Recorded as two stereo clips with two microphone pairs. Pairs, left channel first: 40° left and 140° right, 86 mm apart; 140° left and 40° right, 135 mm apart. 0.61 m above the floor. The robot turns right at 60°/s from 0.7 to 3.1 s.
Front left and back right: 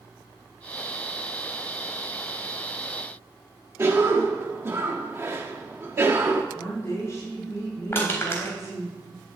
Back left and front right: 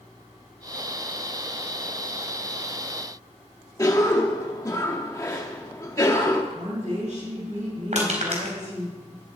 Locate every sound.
3.8 s a cough: 175° right, 1.1 m
6.5 s a woman speaking: 15° right, 8 m
7.9 s crushing: 20° right, 3.5 m